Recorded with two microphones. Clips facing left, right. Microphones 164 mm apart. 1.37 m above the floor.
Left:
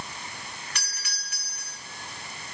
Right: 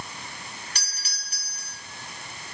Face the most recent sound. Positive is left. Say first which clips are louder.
# left 2 dB
turn(degrees=-35)  # may be behind; listen again after turning